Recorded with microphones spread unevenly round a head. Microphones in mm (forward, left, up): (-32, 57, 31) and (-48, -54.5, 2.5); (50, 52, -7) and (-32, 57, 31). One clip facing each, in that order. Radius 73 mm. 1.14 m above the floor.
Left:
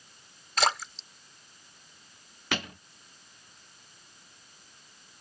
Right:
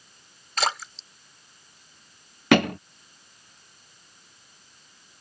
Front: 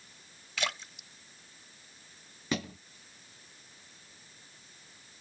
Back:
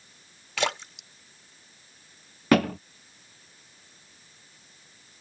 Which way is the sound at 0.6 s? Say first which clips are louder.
Even, back 8 dB; 170° left.